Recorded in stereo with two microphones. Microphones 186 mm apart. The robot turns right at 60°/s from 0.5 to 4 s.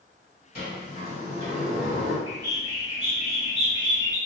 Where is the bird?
35° left, 1.0 m; by 4.2 s 140° left, 1.0 m.